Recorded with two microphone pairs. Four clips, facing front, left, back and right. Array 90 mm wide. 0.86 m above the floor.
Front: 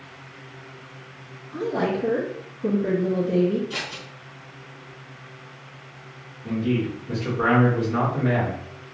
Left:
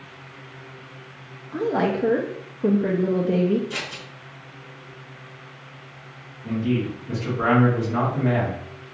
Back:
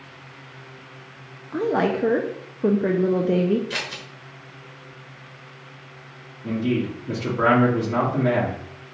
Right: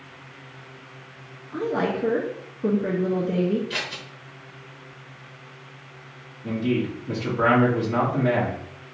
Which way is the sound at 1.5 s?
160° left.